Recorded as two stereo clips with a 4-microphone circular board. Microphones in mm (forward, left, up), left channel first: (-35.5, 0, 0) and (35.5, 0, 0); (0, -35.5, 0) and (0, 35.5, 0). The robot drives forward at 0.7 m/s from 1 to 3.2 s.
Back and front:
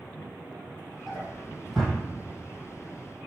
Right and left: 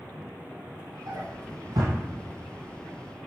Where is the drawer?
85° left, 2 m; by 2.0 s 100° left, 2 m.